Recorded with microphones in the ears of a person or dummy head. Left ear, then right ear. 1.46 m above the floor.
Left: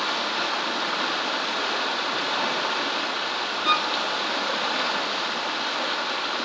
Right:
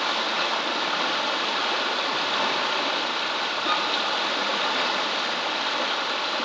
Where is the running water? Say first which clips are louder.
Right 1 dB; 10° right (ahead or behind), 1.7 m.